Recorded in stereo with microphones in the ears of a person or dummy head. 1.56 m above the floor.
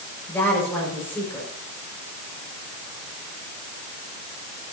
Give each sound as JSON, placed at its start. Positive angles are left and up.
{"t": 0.3, "sound": "a woman speaking", "side_deg": 10, "distance_m": 6.0}